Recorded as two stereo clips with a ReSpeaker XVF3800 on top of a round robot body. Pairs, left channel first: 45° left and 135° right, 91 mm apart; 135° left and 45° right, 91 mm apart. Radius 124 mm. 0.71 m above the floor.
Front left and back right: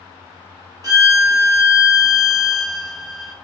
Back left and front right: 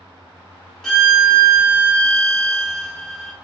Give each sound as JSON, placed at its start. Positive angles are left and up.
{"t": 0.8, "sound": "a violin", "azimuth_deg": -140, "distance_m": 1.3}